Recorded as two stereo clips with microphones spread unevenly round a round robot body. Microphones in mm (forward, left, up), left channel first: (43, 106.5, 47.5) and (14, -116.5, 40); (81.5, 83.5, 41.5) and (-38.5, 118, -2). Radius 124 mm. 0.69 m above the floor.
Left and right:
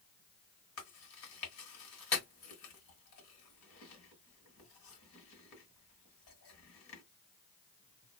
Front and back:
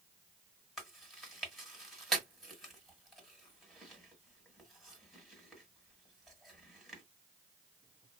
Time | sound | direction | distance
0.8 | chewing | 70° left | 1.7 m